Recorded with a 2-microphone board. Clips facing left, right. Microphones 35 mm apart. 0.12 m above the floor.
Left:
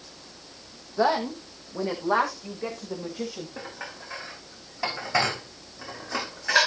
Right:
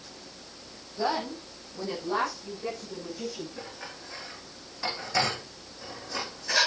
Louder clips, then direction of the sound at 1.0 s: Left 6 dB; 65° left (ahead or behind).